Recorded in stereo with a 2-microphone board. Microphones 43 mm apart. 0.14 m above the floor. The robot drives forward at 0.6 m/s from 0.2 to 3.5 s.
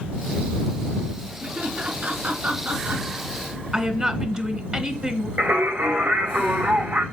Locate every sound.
1.4 s laughter: 40° right (ahead or behind), 2.5 m; by 3.0 s 45° right (ahead or behind), 2.5 m
3.7 s a woman speaking: 25° right (ahead or behind), 1.3 m
5.4 s singing: 70° right (ahead or behind), 4.5 m